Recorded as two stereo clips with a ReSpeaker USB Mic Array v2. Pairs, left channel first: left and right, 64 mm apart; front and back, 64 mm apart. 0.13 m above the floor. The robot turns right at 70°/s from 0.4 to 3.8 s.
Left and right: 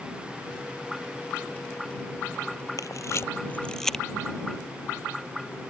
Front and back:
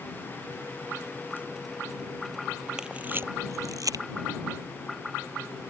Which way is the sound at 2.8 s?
100° left.